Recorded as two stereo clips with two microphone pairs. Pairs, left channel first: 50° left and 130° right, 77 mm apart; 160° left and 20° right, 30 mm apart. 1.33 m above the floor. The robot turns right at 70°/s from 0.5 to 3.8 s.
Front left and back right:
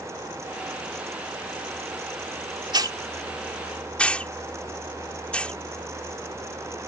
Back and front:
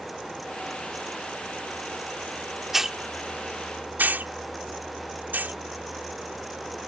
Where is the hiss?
105° right; by 5.5 s 30° right.